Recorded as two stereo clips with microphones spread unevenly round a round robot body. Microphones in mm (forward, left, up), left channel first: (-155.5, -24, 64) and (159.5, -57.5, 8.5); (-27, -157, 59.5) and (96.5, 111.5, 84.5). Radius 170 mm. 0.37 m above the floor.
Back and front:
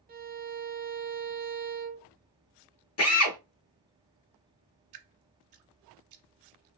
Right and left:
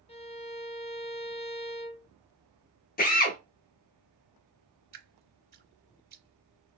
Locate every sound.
0.1 s a violin: 55° right, 0.7 m
3.0 s a drill: 155° right, 0.9 m
4.9 s dripping: 5° left, 0.9 m